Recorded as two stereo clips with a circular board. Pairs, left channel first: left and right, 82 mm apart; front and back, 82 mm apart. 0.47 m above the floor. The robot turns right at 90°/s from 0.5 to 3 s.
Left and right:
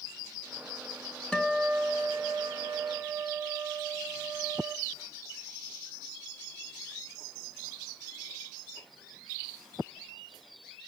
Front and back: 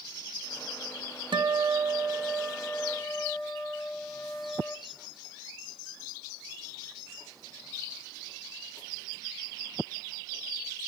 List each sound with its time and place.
1.3 s a guitar: 170° left, 0.8 m; by 4.8 s 40° right, 0.8 m